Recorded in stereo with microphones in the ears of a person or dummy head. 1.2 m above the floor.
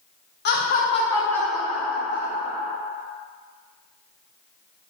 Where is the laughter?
55° left (ahead or behind), 0.7 m; by 2.7 s 35° right (ahead or behind), 1.0 m.